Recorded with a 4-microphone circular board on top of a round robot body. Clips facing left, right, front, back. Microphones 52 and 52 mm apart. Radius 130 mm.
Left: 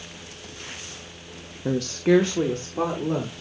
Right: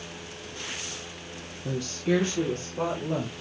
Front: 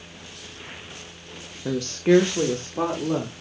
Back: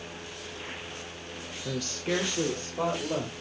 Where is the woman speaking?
60° left, 0.7 m; by 3.4 s 35° left, 3 m.